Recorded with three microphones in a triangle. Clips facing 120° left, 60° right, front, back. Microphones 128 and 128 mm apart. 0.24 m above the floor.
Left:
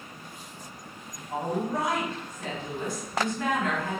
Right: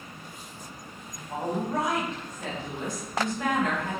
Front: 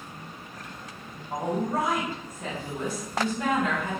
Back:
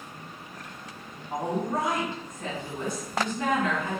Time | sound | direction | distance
1.3 | a woman speaking | 65° right | 1.6 m